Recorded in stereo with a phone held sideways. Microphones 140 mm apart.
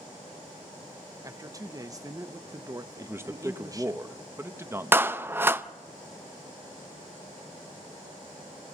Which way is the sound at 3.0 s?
20° right (ahead or behind).